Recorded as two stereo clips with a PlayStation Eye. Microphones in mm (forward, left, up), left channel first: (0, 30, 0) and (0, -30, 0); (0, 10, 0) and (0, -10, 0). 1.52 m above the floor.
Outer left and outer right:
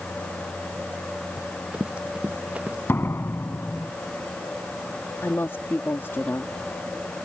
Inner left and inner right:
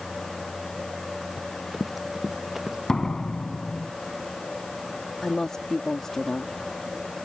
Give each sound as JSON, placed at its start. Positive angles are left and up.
{"t": 1.4, "sound": "running footsteps", "side_deg": -20}
{"t": 2.9, "sound": "a door slam", "side_deg": 40}
{"t": 5.2, "sound": "a woman speaking", "side_deg": 45}